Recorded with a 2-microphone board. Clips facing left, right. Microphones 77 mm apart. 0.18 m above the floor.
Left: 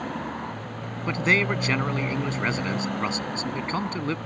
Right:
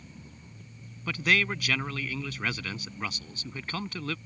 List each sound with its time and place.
0.0 s a motorcycle: 75° left (ahead or behind)
1.1 s a man speaking: 25° left (ahead or behind)